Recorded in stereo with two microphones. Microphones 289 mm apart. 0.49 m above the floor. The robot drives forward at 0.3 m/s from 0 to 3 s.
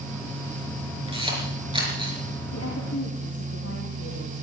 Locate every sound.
1.1 s a camera shutter: 20° right (ahead or behind), 5 m; by 2.2 s 15° right (ahead or behind), 5.5 m
2.5 s a woman speaking: 60° left (ahead or behind), 4 m